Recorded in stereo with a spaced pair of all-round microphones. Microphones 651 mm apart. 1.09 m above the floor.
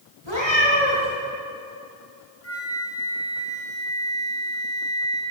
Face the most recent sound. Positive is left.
turn(degrees=25)  # may be behind; listen again after turning